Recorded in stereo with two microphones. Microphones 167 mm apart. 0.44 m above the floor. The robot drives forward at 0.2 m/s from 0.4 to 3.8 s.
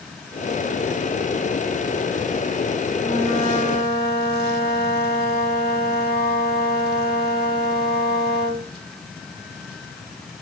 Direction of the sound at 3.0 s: 40° right (ahead or behind).